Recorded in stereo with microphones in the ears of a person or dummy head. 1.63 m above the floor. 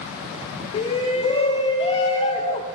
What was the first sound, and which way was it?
A shout, 30° left (ahead or behind).